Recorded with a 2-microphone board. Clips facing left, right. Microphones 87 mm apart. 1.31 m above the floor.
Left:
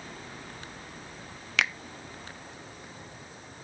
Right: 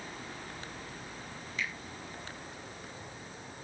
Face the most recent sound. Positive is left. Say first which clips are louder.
# left 9 dB
turn(degrees=80)